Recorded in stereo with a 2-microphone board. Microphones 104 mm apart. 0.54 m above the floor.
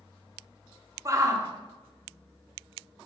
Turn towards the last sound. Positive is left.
turn(degrees=-30)  # may be behind; listen again after turning